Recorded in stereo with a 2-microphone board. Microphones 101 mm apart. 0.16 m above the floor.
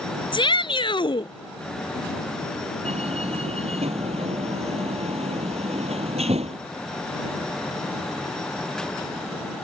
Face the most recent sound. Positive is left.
turn(degrees=-75)  # may be behind; listen again after turning